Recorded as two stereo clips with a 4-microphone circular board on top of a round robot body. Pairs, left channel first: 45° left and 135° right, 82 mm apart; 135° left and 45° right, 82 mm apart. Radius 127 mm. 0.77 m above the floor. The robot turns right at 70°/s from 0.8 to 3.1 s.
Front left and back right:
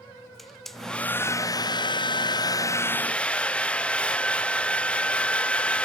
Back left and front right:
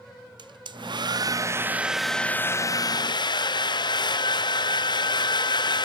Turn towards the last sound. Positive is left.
turn(degrees=120)